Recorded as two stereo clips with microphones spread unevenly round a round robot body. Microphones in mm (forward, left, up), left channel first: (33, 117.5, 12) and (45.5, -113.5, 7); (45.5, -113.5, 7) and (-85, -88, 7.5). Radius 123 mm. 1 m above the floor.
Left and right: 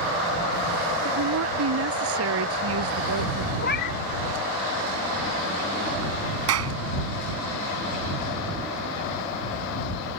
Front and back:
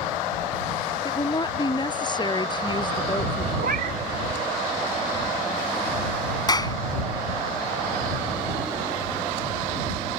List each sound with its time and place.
1.1 s a woman speaking: 65° right
3.6 s a cat meowing: 145° left
6.5 s a clap: 70° right